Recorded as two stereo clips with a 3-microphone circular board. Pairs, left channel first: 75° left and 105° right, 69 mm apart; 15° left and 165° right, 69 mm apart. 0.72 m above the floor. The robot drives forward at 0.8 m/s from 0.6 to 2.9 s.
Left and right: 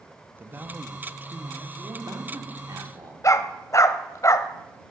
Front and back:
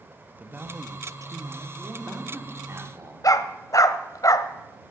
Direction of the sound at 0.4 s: 120° right.